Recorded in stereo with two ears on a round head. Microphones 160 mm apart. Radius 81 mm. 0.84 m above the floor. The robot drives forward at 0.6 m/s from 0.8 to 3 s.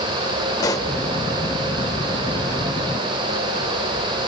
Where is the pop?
20° left (ahead or behind), 0.8 m.